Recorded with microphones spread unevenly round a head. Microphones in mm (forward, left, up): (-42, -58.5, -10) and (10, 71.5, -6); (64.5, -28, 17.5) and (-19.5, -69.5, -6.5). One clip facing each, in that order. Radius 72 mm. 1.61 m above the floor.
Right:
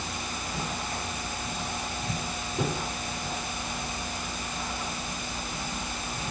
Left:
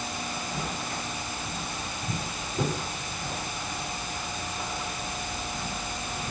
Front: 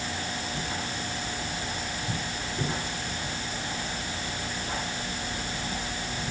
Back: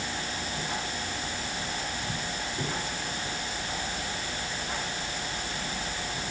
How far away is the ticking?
No ticking in this recording.